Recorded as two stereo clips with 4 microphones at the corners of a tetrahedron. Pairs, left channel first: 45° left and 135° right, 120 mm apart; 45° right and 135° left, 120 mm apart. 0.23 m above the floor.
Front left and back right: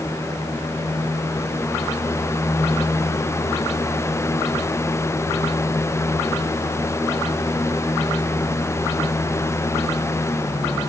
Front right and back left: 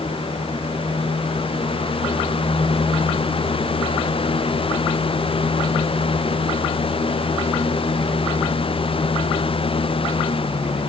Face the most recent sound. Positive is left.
No sound to turn to.